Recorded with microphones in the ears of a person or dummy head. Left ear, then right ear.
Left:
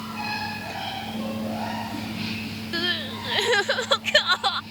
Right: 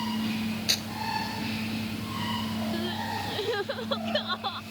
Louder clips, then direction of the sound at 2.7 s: Left 9 dB; 40° left (ahead or behind).